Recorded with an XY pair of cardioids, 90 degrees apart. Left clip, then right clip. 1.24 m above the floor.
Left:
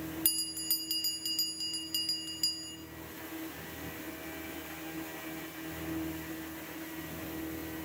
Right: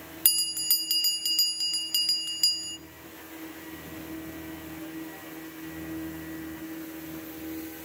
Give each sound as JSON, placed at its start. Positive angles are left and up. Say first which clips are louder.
{"t": 0.2, "sound": "a bell", "louder": "right 9 dB", "azimuth_deg": -55, "distance_m": 0.6}